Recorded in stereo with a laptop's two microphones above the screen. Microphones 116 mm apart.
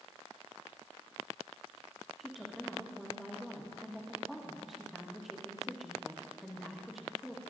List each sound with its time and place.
2.2 s a woman speaking: centre (ahead or behind), 1.6 m